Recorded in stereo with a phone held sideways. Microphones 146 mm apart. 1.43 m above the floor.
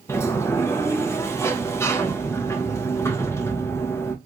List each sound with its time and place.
0.1 s a sliding door: 20° left (ahead or behind), 0.7 m